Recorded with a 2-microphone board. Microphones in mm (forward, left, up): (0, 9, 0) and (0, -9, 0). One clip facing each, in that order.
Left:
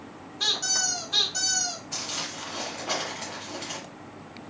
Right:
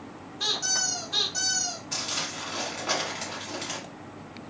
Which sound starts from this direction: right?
Crumpling, at 1.9 s.